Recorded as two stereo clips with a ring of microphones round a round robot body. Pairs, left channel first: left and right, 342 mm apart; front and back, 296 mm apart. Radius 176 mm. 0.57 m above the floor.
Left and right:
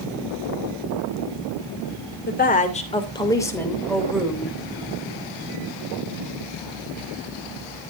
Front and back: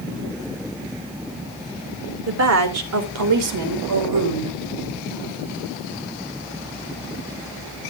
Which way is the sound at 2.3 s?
150° left.